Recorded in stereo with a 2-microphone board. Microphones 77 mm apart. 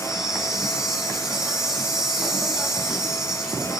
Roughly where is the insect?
Centre.